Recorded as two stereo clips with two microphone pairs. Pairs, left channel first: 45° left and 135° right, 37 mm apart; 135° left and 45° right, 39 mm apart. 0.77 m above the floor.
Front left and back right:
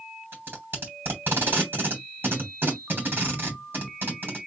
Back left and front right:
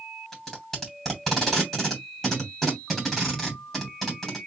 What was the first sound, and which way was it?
Tape being pulled, 145° right.